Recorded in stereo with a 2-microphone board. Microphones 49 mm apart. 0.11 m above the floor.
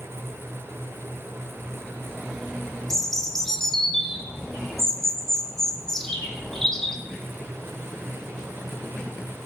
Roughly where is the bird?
Centre.